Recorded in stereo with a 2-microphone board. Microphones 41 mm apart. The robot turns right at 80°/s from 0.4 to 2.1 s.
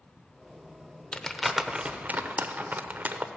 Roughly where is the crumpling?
Left.